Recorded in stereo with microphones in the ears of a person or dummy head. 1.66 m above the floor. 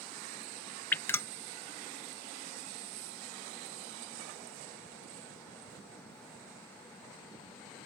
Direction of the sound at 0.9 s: 10° left (ahead or behind).